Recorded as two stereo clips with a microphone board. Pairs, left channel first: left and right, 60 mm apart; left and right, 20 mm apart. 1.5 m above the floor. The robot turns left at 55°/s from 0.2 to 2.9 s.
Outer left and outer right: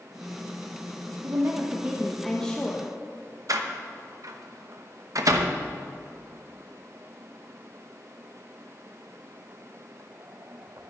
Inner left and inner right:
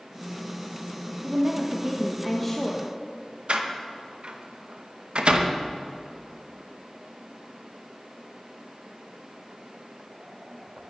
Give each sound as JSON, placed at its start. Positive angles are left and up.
{"t": 1.2, "sound": "a woman speaking", "azimuth_deg": -130, "distance_m": 1.3}
{"t": 3.5, "sound": "a door slam", "side_deg": -60, "distance_m": 1.0}